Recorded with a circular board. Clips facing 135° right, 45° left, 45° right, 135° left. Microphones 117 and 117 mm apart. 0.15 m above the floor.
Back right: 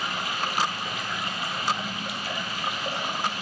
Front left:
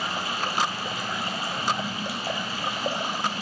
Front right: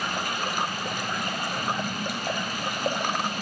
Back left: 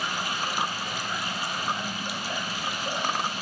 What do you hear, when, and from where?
0.0 s running water: 10° right, 1.9 m